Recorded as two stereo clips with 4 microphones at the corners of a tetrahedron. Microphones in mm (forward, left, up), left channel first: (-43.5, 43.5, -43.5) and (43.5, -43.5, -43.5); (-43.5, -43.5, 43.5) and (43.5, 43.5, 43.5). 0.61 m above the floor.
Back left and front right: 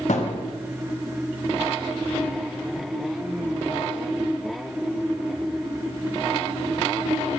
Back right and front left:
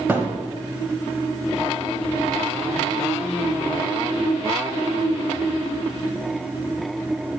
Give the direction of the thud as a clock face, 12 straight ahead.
8 o'clock.